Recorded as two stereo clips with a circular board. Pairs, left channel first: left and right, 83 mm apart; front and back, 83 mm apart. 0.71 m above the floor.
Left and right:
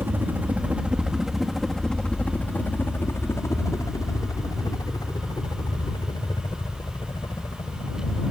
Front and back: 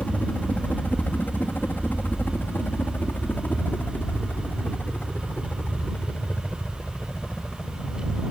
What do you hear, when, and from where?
0.0 s a helicopter: 60° right; by 8.3 s 75° left